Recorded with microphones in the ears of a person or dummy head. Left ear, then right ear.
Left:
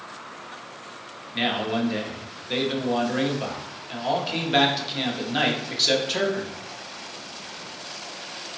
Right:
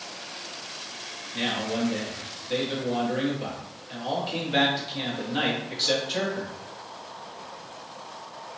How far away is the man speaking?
About 0.7 m.